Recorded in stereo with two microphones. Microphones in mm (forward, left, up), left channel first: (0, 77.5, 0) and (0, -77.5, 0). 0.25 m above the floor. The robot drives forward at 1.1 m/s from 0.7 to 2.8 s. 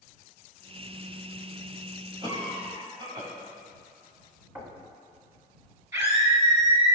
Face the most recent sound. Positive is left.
turn(degrees=-20)  # may be behind; listen again after turning